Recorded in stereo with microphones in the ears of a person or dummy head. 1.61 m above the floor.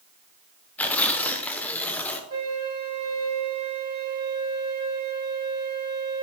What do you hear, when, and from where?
0.8 s tearing paper: 5° left (ahead or behind), 1.0 m
2.3 s a flute: 55° right (ahead or behind), 3 m